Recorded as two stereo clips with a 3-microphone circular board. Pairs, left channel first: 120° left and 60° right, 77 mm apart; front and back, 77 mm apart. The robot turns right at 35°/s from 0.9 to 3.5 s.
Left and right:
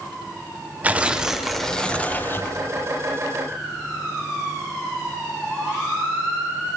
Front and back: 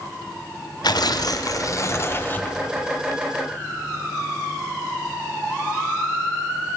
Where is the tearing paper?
10° left, 0.7 m; by 2.6 s 65° left, 0.7 m.